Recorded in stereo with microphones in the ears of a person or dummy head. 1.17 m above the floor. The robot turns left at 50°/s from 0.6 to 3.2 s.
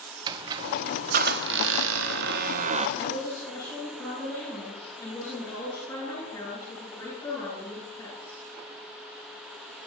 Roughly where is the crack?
No crack in this recording.